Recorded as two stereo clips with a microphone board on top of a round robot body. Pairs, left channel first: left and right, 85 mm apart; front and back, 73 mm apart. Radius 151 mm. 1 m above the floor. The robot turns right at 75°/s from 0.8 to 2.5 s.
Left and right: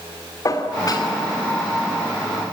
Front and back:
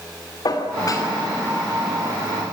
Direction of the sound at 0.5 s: 40° left.